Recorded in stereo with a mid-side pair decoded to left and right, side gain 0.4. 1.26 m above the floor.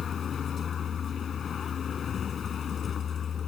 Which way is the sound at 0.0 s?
55° left.